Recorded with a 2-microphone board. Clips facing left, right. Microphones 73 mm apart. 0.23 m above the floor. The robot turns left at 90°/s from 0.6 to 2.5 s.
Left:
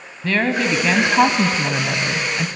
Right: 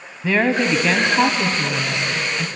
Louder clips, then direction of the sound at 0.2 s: Right 1 dB; 160° right.